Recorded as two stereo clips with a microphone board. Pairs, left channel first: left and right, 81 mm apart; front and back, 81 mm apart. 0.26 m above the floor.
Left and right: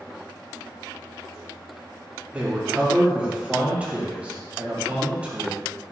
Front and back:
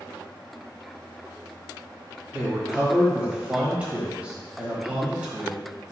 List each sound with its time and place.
2.3 s a man speaking: 130° right, 1.3 m